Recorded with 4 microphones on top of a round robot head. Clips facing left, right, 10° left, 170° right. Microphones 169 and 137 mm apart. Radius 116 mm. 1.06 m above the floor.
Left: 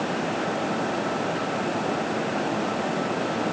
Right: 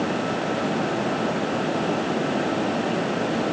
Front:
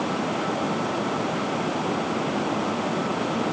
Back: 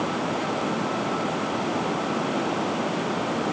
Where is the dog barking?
I don't hear a dog barking.